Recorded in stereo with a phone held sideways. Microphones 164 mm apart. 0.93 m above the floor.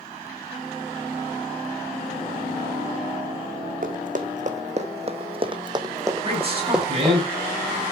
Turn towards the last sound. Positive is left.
turn(degrees=-35)  # may be behind; listen again after turning